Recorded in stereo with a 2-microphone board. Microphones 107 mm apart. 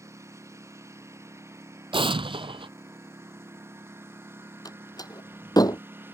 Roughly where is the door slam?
Left.